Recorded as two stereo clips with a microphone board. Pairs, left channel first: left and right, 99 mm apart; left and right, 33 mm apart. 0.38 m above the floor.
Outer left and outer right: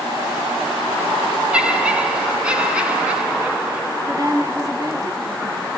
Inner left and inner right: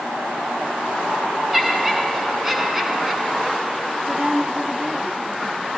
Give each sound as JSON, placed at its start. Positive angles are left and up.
{"t": 1.5, "sound": "laughter", "side_deg": -10, "distance_m": 4.5}
{"t": 4.1, "sound": "a woman speaking", "side_deg": -40, "distance_m": 3.0}